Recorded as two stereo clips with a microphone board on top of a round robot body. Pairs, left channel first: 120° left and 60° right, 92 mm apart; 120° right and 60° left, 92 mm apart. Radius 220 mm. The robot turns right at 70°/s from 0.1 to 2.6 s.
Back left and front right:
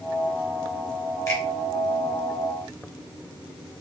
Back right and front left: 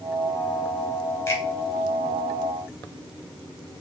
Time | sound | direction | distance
1.3 | a finger snap | 175° left | 4 m